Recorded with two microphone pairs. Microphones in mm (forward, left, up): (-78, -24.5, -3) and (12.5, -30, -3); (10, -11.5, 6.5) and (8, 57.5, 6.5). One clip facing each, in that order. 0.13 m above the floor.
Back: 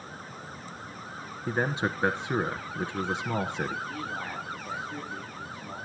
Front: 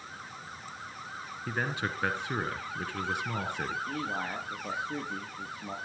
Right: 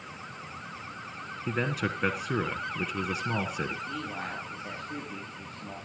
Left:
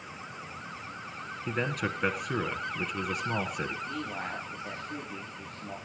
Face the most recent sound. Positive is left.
turn(degrees=0)